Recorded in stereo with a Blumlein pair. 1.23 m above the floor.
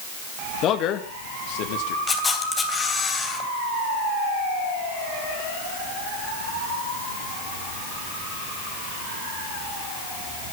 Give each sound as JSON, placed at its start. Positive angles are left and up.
{"t": 0.6, "sound": "a man speaking", "azimuth_deg": 35, "distance_m": 2.0}
{"t": 2.1, "sound": "a camera shutter", "azimuth_deg": 15, "distance_m": 3.0}